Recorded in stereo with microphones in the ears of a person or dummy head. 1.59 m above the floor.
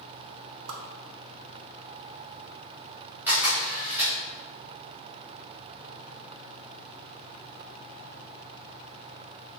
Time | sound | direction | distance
0.7 | a whoosh | 90° right | 0.8 m
3.3 | a camera shutter | 10° right (ahead or behind) | 1.9 m